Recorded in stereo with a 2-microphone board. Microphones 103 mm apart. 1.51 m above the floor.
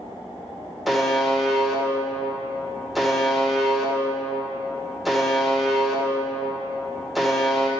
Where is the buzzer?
Centre (ahead or behind), 1.1 m.